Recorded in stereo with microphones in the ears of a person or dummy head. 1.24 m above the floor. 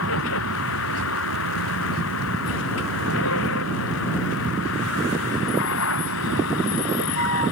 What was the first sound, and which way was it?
A vehicle, 80° left.